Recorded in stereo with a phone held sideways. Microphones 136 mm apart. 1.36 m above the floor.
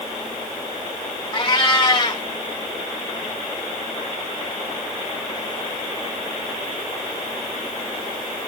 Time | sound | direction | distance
1.3 | a cat meowing | 35° left (ahead or behind) | 0.9 m